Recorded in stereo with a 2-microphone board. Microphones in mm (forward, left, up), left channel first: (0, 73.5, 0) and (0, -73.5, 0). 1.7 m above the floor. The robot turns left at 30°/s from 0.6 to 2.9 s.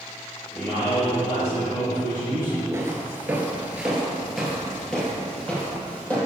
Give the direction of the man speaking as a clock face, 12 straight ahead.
7 o'clock.